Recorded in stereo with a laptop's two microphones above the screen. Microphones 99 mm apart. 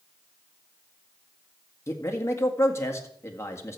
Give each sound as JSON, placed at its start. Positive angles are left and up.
{"t": 1.9, "sound": "a man speaking", "side_deg": 30, "distance_m": 1.9}